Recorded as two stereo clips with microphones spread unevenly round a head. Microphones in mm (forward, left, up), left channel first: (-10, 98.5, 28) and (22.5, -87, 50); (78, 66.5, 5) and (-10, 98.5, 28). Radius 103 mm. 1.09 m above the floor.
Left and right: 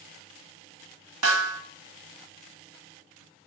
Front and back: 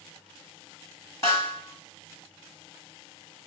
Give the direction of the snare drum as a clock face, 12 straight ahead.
3 o'clock.